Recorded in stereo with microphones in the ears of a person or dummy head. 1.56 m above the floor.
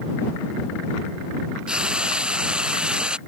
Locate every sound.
1.7 s frying: 10° right (ahead or behind)